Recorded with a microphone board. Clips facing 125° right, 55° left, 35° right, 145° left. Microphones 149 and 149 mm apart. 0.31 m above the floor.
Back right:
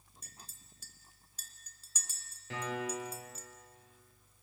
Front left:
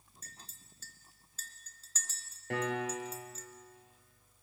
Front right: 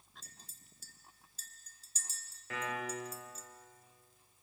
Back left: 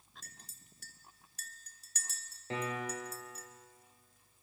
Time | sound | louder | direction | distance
0.2 | a clink | front left 1 dB, back left 2 dB | 160° left | 1.9 m
2.5 | a piano | front left 3 dB, back left 2 dB | 85° left | 3.5 m